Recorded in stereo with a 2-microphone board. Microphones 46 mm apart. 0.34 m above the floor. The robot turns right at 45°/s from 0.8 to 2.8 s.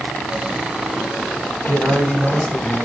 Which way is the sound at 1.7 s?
40° right.